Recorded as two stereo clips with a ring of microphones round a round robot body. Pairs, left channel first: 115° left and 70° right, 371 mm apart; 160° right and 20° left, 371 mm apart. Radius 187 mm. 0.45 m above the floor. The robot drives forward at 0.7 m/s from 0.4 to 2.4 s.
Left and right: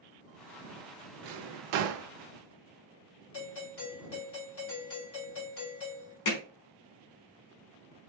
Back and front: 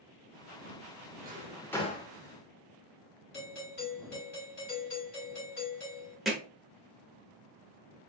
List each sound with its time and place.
1.2 s a drawer: 40° right, 0.7 m; by 2.1 s 105° right, 0.5 m
3.3 s a doorbell: 155° left, 2.5 m
6.2 s hammering: 110° left, 1.2 m